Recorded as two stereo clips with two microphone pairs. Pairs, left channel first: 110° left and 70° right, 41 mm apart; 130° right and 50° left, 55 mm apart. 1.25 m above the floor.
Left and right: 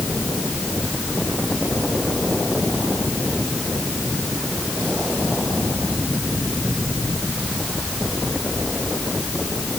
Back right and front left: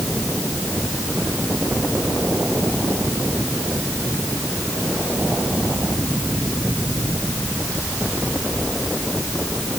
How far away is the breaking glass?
No breaking glass in this recording.